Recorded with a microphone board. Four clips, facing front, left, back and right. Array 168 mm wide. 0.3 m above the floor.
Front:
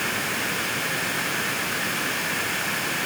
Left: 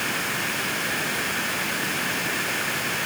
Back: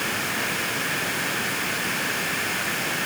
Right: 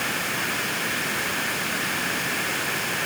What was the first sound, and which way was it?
Only background noise.